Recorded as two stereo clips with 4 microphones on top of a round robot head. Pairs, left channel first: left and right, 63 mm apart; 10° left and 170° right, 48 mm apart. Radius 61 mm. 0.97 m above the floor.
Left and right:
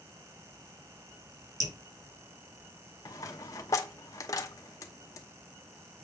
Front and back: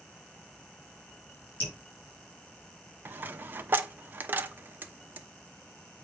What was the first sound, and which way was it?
Dripping, 60° right.